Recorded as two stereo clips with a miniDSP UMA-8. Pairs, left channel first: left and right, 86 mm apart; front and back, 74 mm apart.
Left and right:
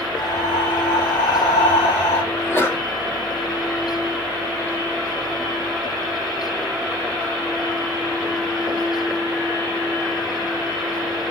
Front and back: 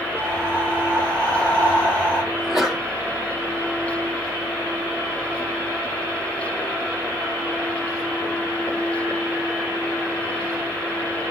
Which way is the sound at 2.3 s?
95° left.